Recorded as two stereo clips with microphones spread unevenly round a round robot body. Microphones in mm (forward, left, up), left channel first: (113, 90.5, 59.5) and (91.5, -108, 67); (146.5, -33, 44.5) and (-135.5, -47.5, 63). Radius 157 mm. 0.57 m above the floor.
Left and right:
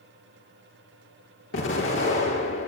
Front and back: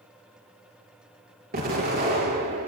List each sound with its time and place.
1.5 s an explosion: 120° left, 5 m